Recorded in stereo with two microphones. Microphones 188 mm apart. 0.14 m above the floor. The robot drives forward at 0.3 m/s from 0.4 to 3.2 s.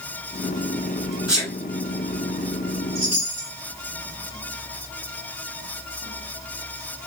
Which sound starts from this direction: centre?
A sneeze, at 1.3 s.